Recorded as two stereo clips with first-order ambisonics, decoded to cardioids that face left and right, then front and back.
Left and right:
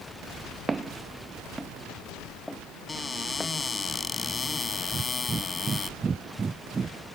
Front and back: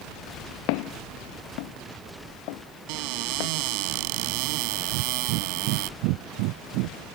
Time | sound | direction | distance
0.7 | footsteps | 15° right | ?
2.9 | a cupboard door | 165° left | ?
4.9 | breathing | 165° right | ?